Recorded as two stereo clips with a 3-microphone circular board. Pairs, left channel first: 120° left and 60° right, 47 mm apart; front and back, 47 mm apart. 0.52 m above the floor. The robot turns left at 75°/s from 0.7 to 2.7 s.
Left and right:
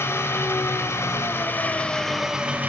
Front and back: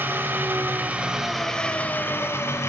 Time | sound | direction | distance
0.0 | an engine running | 140° left | 1.5 m